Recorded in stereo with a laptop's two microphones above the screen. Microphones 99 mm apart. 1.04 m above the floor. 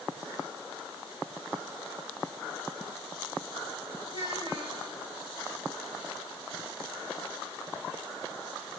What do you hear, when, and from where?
4.1 s a child speaking: 55° right (ahead or behind), 4.5 m